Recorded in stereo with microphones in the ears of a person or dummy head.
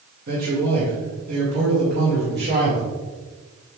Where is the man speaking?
50° right (ahead or behind), 1.9 m; by 2.9 s 60° right (ahead or behind), 3 m.